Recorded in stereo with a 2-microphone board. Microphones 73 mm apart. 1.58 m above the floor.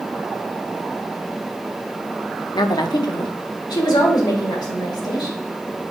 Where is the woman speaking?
75° left (ahead or behind), 0.6 m.